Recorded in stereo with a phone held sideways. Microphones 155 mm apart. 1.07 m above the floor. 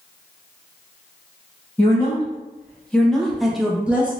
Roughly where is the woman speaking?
Centre.